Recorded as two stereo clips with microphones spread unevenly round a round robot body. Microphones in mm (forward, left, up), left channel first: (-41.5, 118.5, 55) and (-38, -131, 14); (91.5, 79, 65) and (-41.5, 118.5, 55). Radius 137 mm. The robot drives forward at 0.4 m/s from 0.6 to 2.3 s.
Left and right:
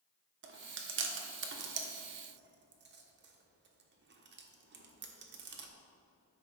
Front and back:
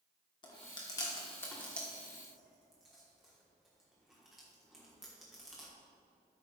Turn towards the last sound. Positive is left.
turn(degrees=-110)